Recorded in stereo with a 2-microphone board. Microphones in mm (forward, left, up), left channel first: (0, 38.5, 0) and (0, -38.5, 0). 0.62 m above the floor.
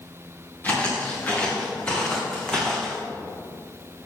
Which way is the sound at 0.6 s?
25° left (ahead or behind).